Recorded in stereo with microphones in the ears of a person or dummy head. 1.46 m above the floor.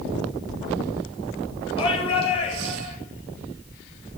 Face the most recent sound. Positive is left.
turn(degrees=40)  # may be behind; listen again after turning